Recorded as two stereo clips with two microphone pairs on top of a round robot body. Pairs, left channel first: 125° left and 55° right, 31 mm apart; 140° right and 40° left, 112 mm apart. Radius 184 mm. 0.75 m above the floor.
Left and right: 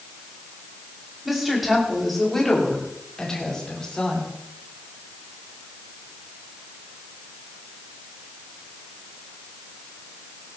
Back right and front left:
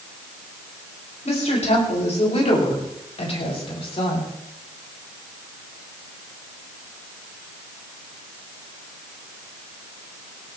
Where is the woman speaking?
140° right, 6 m; by 4.3 s 175° right, 7.5 m.